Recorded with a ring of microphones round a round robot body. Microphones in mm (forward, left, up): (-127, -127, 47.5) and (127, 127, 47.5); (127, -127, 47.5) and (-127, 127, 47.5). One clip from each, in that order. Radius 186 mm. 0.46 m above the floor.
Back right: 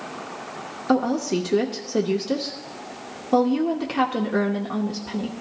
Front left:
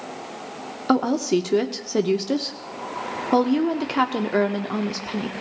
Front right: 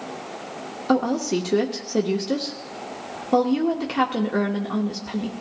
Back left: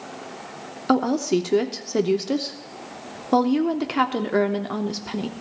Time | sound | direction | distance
0.9 | a woman speaking | 80° left | 0.9 m